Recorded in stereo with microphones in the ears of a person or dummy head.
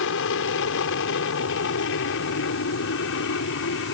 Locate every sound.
0.0 s an aircraft: 65° left (ahead or behind)